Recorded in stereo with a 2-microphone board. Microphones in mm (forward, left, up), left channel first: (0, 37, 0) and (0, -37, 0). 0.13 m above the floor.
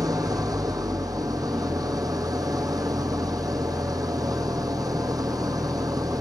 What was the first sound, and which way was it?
An engine running, 55° right (ahead or behind).